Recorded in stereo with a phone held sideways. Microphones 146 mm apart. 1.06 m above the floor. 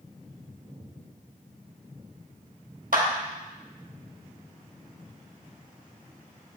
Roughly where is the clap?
Right.